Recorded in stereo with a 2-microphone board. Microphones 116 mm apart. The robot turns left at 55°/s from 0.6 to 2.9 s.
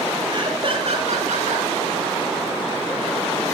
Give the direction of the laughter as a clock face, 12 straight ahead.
1 o'clock.